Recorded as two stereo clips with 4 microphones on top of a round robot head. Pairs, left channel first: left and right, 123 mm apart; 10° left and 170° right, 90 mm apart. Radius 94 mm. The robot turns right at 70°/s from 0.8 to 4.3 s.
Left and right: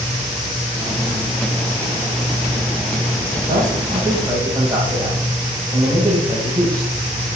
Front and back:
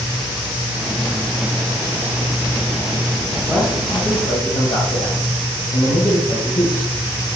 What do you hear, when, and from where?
3.5 s a man speaking: 85° right, 3 m; by 6.9 s 30° right, 3 m